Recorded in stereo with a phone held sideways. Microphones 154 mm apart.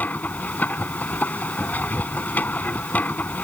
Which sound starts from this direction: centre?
A machine running, at 0.0 s.